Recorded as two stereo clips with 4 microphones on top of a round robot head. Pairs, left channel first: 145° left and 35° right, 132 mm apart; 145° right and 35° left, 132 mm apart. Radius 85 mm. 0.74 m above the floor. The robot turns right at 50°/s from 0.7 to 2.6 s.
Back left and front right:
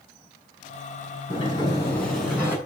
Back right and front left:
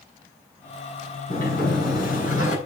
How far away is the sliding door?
About 6 m.